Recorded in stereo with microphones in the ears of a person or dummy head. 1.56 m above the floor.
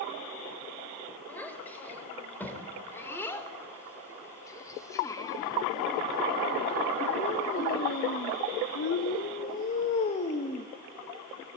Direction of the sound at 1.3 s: 15° left (ahead or behind).